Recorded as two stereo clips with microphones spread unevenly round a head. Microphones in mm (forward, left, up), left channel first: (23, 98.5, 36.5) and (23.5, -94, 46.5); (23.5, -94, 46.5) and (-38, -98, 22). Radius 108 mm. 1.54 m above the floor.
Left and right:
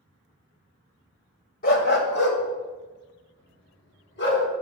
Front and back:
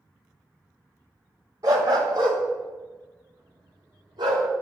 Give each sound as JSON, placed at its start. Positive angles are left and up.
{"t": 1.6, "sound": "a dog barking", "azimuth_deg": 115, "distance_m": 1.6}